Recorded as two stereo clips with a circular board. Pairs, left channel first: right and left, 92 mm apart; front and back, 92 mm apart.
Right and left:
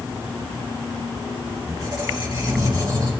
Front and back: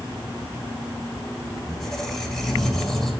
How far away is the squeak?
About 1.9 m.